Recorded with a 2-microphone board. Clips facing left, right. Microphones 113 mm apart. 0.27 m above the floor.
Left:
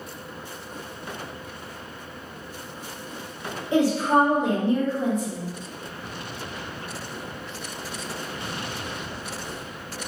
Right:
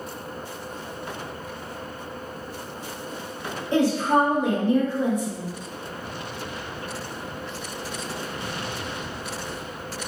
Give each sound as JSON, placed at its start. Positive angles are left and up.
{"t": 3.7, "sound": "a woman speaking", "side_deg": 10, "distance_m": 0.9}